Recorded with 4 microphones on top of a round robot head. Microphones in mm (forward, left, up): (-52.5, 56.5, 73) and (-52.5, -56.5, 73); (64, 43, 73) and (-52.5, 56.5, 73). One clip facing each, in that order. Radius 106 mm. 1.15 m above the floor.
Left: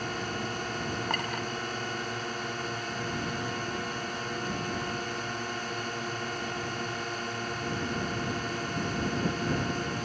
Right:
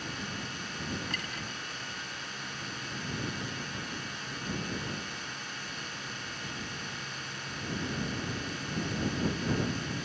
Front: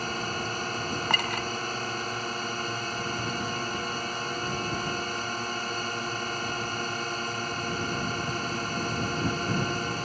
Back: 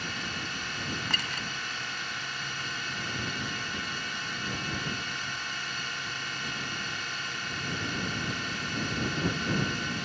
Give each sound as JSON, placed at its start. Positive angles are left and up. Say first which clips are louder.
{"t": 0.0, "sound": "a drone", "louder": "left 6 dB, front 6 dB", "azimuth_deg": 40}
{"t": 1.1, "sound": "a clink", "louder": "left 8 dB, front 7 dB", "azimuth_deg": 35}